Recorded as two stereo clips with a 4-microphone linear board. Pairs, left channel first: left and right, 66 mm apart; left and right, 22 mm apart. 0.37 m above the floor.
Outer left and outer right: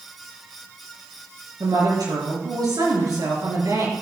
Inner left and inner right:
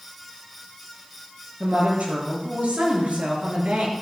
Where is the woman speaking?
75° right (ahead or behind), 5 m.